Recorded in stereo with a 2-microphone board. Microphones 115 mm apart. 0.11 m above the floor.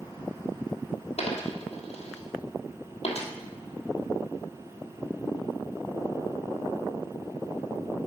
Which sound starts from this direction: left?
A dropped coin, at 1.2 s.